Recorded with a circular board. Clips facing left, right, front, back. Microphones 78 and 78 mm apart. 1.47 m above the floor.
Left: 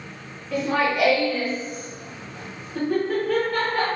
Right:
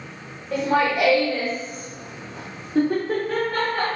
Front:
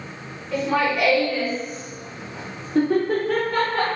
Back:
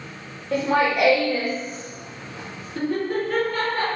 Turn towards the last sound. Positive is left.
turn(degrees=-5)